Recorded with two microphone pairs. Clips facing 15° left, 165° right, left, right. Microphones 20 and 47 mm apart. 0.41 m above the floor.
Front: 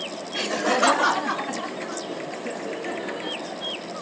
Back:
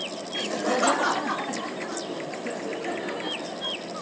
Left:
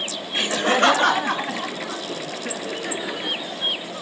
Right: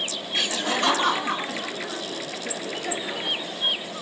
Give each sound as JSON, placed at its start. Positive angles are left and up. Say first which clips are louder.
{"t": 0.3, "sound": "laughter", "louder": "front 3 dB, left 6 dB", "azimuth_deg": 40, "distance_m": 1.3}